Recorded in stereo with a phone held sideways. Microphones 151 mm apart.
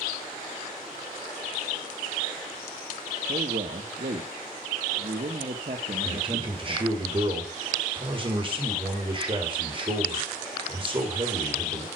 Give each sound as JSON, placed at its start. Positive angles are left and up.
{"t": 3.3, "sound": "a man speaking", "side_deg": -60, "distance_m": 1.8}
{"t": 6.0, "sound": "a man speaking", "side_deg": -35, "distance_m": 6.0}